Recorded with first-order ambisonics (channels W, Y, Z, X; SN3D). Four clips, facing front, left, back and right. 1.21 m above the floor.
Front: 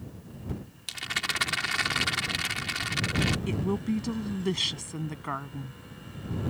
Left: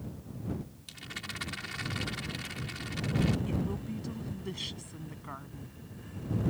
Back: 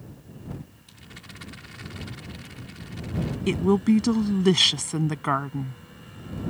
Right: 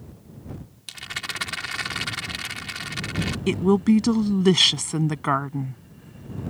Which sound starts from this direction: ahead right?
A rattle, at 0.9 s.